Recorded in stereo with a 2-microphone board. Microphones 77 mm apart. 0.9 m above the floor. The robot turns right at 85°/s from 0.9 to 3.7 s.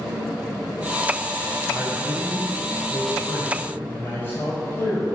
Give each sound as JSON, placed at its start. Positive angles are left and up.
{"t": 1.7, "sound": "a man speaking", "azimuth_deg": -20, "distance_m": 5.0}